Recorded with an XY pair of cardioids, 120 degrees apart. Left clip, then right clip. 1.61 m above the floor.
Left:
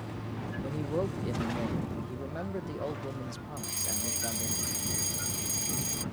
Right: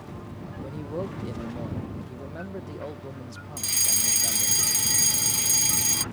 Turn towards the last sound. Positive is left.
turn(degrees=-55)